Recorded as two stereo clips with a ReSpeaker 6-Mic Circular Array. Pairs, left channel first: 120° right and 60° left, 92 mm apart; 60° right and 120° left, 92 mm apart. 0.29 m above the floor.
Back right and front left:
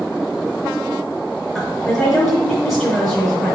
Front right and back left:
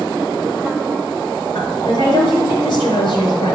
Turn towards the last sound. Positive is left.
turn(degrees=-30)